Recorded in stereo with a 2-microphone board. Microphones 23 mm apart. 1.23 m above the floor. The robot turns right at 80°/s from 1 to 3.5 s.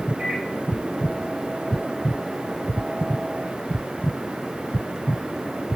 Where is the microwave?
60° right (ahead or behind), 6 m.